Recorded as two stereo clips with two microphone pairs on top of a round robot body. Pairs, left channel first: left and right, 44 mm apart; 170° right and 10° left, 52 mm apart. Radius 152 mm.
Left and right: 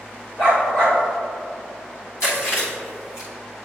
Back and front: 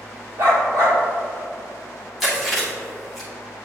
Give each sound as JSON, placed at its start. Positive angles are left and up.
{"t": 0.4, "sound": "a dog barking", "azimuth_deg": 35, "distance_m": 1.5}
{"t": 2.2, "sound": "chewing", "azimuth_deg": 95, "distance_m": 1.8}